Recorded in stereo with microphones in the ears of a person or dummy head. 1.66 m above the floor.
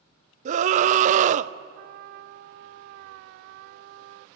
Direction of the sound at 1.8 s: 55° right (ahead or behind).